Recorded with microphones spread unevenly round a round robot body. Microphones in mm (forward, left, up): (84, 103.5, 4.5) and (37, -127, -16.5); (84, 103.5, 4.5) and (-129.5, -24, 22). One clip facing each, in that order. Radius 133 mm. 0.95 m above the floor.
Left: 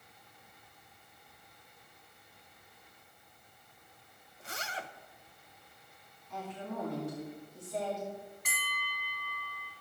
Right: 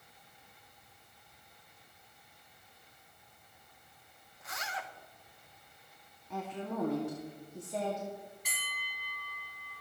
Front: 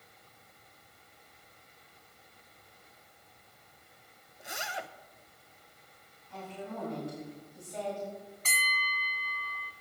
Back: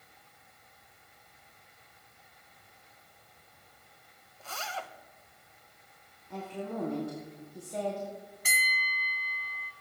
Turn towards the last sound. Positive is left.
turn(degrees=130)